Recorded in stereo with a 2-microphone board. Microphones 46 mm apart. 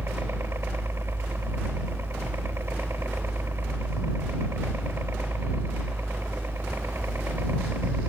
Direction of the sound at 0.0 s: 60° right (ahead or behind).